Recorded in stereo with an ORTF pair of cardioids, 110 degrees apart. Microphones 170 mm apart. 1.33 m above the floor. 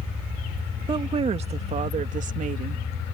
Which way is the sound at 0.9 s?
30° right.